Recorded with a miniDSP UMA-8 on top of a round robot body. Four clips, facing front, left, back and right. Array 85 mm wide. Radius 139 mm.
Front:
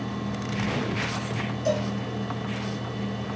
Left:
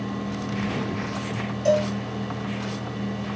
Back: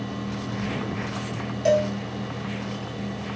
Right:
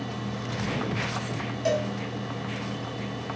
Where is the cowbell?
155° right, 1.5 m.